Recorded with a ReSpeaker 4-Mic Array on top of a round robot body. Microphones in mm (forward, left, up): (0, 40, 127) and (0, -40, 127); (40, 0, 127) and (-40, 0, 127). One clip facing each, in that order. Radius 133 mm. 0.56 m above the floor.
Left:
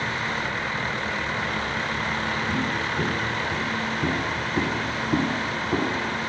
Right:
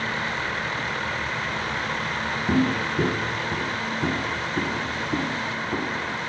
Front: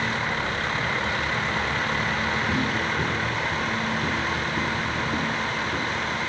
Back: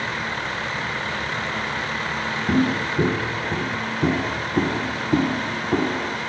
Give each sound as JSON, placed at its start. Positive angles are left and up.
{"t": 2.5, "sound": "footsteps", "azimuth_deg": -140}